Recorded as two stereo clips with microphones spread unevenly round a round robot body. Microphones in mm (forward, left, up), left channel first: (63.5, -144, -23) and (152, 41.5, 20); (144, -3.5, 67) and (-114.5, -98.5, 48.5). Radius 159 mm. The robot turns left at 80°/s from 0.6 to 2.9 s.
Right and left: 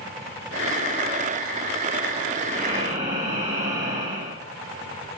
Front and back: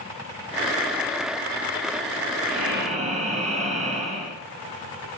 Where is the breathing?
165° left, 3 m; by 4.4 s 130° left, 3 m.